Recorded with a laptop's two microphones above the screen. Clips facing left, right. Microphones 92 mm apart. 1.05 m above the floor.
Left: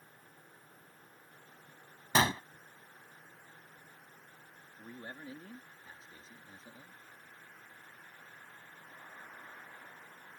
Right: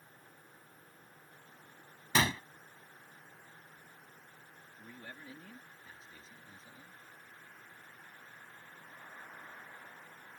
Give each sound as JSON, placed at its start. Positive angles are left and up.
{"t": 2.1, "sound": "a gunshot", "side_deg": 30}
{"t": 4.8, "sound": "a man speaking", "side_deg": 35}